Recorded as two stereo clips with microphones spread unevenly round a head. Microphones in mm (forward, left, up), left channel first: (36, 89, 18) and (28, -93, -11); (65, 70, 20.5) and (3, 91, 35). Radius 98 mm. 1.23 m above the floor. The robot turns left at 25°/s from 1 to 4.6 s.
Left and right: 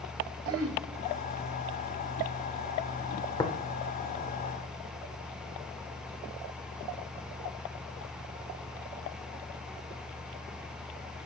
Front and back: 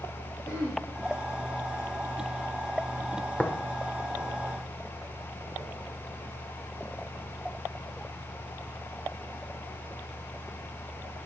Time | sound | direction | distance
0.5 | throat clearing | 105° right | 1.8 m
3.4 | tapping | 60° left | 1.0 m